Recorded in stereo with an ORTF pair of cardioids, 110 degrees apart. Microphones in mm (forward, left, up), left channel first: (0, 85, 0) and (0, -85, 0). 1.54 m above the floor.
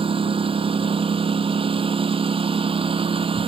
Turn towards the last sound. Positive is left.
turn(degrees=-30)